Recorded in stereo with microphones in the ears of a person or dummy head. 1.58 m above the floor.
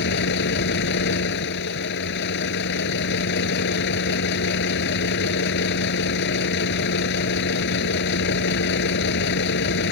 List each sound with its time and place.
0.0 s a vehicle: 65° left (ahead or behind)